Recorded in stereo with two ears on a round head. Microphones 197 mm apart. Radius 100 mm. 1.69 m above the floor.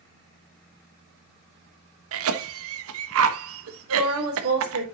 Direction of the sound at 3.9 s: 65° right (ahead or behind).